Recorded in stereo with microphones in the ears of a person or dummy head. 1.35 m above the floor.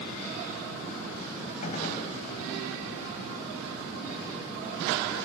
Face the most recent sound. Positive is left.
turn(degrees=45)  # may be behind; listen again after turning